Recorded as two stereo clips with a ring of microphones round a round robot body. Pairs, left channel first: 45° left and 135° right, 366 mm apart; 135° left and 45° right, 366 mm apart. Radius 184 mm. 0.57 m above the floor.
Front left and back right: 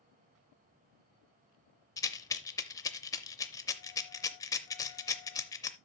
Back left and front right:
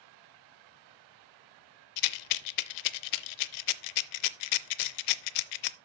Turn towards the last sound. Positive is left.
turn(degrees=125)